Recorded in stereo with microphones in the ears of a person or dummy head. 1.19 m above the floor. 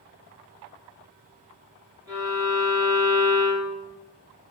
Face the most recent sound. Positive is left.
turn(degrees=-20)  # may be behind; listen again after turning